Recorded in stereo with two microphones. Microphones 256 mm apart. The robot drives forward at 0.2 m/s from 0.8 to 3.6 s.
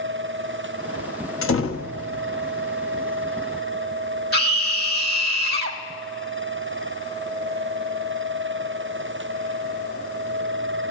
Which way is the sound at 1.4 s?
55° left (ahead or behind).